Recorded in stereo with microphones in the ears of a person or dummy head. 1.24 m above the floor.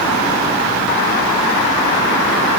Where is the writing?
No writing in this recording.